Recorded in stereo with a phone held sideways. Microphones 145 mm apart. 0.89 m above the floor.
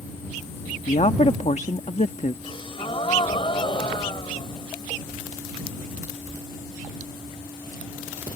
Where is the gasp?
35° left (ahead or behind).